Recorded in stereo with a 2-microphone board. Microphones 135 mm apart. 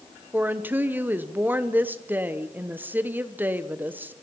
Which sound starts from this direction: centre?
A woman speaking, at 0.3 s.